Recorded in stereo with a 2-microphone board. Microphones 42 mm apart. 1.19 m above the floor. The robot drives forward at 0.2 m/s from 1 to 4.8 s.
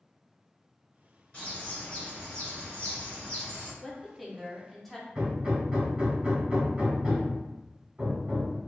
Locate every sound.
1.3 s a bird: 30° left (ahead or behind), 1.4 m; by 3.7 s 25° left (ahead or behind), 1.7 m
3.8 s a woman speaking: centre (ahead or behind), 0.5 m
5.2 s hammering: 25° right (ahead or behind), 1.3 m